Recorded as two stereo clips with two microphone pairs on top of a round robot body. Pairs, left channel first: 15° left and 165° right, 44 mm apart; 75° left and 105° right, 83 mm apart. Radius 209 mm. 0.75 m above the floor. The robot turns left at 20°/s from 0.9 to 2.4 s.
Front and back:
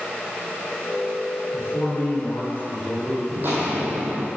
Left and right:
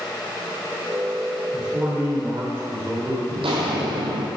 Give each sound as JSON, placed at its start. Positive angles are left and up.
{"t": 1.5, "sound": "a man speaking", "azimuth_deg": -20, "distance_m": 4.0}
{"t": 3.3, "sound": "footsteps", "azimuth_deg": -115, "distance_m": 1.3}